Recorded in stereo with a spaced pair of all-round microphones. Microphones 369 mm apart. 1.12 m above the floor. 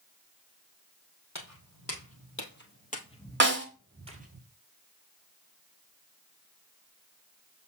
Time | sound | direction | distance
1.4 | footsteps | 50° left (ahead or behind) | 2 m
3.4 | a snare drum | 30° right (ahead or behind) | 1.3 m